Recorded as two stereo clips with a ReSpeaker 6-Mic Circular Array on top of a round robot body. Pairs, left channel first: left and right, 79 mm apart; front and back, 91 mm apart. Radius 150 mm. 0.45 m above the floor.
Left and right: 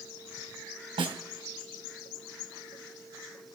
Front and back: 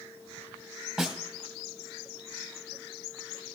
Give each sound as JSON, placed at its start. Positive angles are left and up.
{"t": 1.0, "sound": "a snare drum", "azimuth_deg": -100, "distance_m": 1.9}